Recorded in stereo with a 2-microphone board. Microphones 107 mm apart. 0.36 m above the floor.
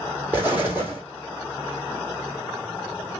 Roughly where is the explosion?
Centre.